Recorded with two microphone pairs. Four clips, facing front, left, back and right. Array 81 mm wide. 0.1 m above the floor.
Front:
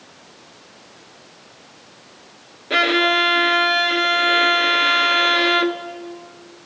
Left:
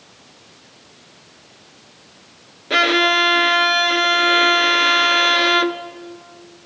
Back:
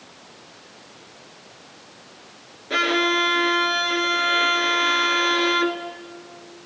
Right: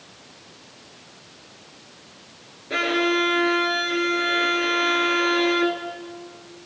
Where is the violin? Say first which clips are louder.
Left 6 dB, front 3 dB; 65° left, 1.2 m.